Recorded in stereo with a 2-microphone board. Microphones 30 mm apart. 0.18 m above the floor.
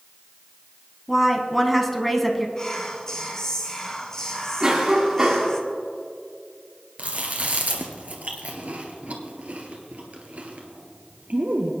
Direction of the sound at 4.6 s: 20° right (ahead or behind).